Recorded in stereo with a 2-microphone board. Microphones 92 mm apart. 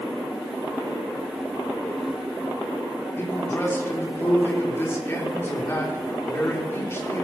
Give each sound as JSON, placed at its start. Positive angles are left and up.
{"t": 3.2, "sound": "a man speaking", "side_deg": 25, "distance_m": 3.0}